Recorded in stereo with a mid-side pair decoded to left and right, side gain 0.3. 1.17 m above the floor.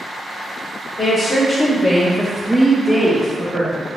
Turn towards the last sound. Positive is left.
turn(degrees=-70)